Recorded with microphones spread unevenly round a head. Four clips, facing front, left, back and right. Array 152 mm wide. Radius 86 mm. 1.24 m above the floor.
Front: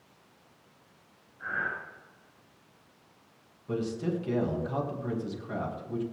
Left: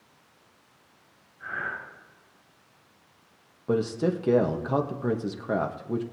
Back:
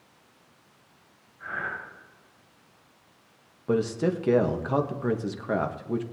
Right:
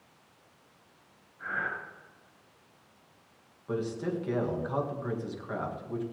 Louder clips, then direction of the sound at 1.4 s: Even, even; 50° right.